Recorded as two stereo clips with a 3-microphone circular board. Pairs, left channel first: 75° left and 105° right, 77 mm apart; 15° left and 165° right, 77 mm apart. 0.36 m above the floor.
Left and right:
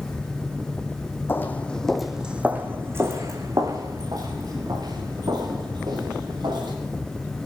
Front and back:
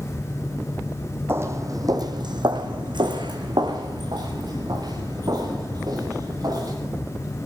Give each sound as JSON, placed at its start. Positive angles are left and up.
{"t": 1.3, "sound": "footsteps", "azimuth_deg": 135, "distance_m": 1.3}